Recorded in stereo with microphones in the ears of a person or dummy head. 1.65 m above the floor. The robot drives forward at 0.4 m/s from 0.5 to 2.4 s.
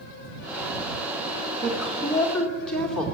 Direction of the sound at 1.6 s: Centre (ahead or behind).